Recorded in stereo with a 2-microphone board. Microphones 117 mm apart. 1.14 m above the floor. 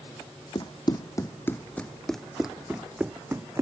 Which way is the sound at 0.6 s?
40° left (ahead or behind).